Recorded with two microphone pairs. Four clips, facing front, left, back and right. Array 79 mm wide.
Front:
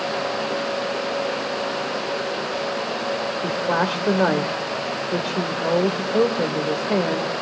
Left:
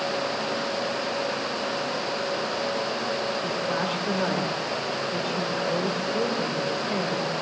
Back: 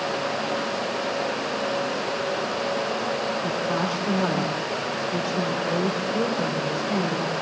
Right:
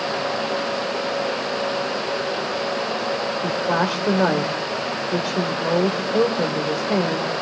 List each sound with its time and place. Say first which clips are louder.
3.4 s a woman speaking: right 6 dB, front 3 dB; 45° right, 2.5 m